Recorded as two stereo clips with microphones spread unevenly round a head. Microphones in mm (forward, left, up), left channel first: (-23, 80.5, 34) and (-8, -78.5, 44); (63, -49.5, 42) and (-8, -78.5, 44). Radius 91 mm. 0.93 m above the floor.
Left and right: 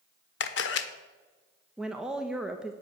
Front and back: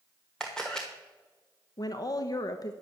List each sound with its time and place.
0.4 s a camera shutter: 110° left, 1.1 m
1.8 s a woman speaking: 5° left, 1.0 m